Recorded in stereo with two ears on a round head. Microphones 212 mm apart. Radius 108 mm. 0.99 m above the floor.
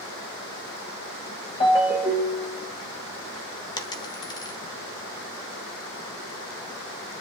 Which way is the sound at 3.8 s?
15° left (ahead or behind).